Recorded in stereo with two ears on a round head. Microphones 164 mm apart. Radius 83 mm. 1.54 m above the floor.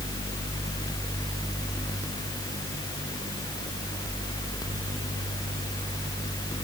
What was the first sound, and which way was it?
Only background noise.